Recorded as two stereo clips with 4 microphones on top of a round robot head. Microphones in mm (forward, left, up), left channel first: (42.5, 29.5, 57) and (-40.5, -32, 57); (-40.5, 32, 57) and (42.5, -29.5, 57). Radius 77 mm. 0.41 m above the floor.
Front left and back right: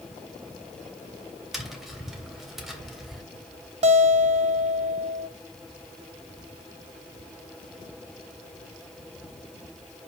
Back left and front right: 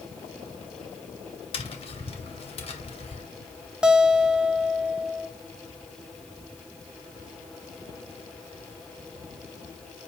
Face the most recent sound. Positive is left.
turn(degrees=-120)